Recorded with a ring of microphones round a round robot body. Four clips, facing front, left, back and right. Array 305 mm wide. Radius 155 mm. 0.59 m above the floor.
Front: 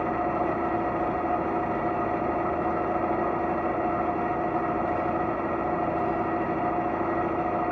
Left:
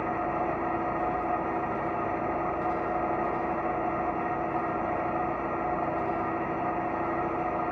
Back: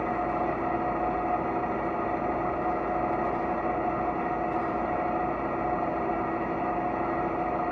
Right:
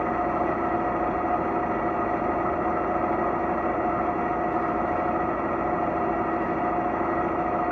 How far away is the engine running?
About 1.0 m.